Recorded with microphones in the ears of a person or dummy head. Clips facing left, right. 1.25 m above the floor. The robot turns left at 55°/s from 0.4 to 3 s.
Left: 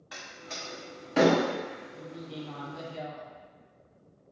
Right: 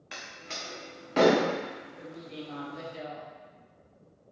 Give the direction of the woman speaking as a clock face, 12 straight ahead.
8 o'clock.